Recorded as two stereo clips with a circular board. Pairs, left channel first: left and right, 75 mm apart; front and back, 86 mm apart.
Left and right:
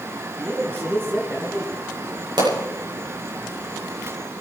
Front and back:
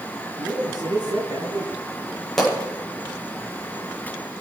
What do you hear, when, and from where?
0.4 s a man speaking: 150° right, 4.5 m
2.4 s a pop: 85° right, 8.5 m